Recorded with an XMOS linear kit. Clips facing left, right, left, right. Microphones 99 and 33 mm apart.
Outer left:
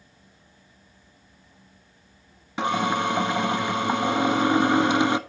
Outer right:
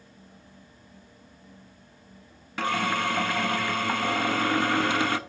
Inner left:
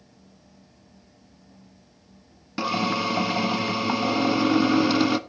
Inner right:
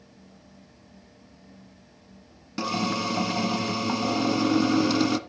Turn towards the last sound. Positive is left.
turn(degrees=20)  # may be behind; listen again after turning